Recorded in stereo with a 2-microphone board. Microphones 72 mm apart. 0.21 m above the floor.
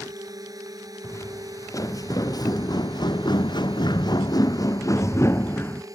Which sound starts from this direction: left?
Footsteps, at 1.0 s.